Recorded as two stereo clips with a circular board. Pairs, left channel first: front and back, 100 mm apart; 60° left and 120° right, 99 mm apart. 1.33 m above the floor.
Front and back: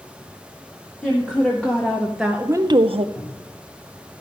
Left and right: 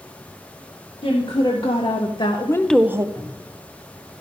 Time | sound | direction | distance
1.0 | a woman speaking | 75° left | 2 m
3.1 | a cupboard door | 15° right | 4.5 m